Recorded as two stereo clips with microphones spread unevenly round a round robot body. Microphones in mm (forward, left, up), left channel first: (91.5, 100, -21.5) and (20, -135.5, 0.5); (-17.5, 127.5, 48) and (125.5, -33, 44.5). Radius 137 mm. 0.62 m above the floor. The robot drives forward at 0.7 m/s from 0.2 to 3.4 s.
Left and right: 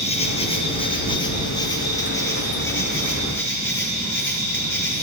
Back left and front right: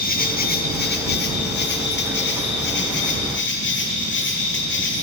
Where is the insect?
120° left, 2.5 m; by 5.0 s 155° left, 4 m.